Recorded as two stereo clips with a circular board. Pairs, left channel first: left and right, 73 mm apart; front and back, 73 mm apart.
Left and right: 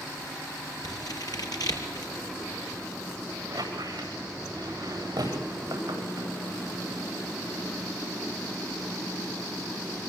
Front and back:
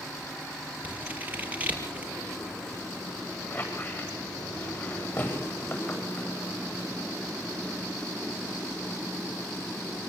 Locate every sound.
0.8 s scissors: 115° left, 5 m
3.5 s a squeak: 55° right, 9.5 m